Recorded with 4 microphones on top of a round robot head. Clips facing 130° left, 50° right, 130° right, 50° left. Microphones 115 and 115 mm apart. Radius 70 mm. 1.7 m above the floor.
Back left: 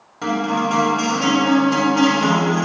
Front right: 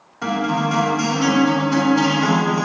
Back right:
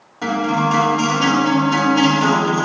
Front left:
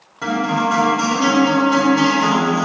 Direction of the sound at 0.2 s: 165° left.